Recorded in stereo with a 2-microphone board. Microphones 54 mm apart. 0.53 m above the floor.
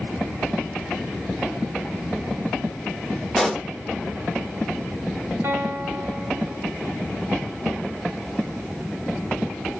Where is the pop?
Centre (ahead or behind), 1.1 m.